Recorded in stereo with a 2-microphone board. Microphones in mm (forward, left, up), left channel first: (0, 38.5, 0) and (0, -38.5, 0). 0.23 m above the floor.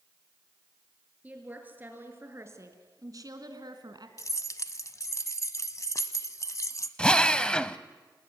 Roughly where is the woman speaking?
Centre.